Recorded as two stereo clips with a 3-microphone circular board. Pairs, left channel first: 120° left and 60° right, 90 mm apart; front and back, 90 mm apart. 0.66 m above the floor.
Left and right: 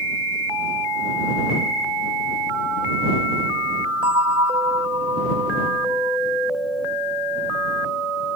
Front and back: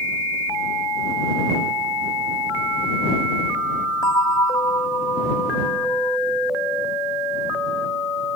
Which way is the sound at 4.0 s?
45° right.